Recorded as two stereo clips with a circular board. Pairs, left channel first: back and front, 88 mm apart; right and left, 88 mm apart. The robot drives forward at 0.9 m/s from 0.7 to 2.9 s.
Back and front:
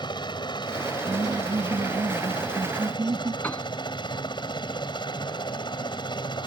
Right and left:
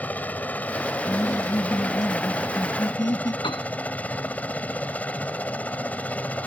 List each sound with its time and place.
0.0 s a helicopter: 160° right
1.1 s laughter: 40° right; by 3.3 s 55° right
3.4 s a piano: 110° right